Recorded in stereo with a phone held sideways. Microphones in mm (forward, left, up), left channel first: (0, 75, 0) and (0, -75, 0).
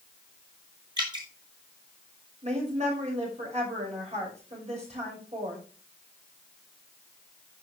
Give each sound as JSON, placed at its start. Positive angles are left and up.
{"t": 1.0, "sound": "dripping", "side_deg": -30, "distance_m": 5.5}
{"t": 2.4, "sound": "a woman speaking", "side_deg": -50, "distance_m": 5.5}